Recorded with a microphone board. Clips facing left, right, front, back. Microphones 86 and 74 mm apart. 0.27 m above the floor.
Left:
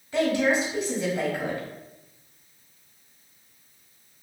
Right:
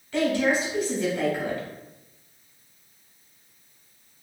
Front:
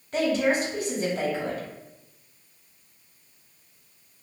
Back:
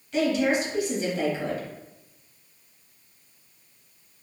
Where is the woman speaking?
25° left, 1.4 m.